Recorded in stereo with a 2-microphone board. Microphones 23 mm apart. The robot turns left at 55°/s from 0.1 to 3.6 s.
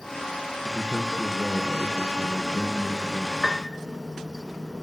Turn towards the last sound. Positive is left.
turn(degrees=5)  # may be behind; listen again after turning